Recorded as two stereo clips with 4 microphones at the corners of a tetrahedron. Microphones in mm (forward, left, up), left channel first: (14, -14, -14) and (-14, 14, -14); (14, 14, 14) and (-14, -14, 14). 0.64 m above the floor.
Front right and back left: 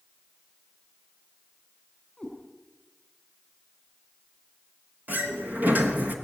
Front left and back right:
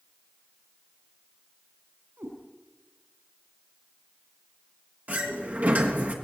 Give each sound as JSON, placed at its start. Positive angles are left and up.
{"t": 2.2, "sound": "a cat meowing", "azimuth_deg": -130, "distance_m": 8.0}
{"t": 5.1, "sound": "a sliding door", "azimuth_deg": 180, "distance_m": 3.0}